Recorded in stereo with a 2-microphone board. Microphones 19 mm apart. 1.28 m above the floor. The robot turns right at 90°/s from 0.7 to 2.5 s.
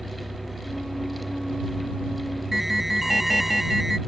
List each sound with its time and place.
0.0 s a vehicle: 155° right; by 4.1 s 5° left
2.5 s an alarm: 5° right (ahead or behind)